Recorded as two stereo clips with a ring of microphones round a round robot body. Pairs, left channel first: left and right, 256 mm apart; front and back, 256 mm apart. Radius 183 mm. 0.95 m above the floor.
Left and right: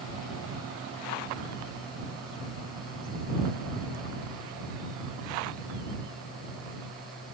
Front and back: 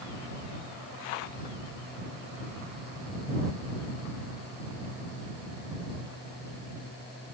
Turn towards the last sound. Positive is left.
No sound to turn to.